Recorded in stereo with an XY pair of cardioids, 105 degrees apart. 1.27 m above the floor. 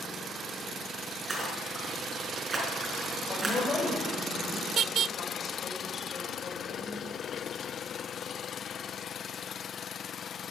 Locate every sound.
1.3 s a splash: 25° right, 5 m
3.3 s a woman speaking: 45° left, 5.5 m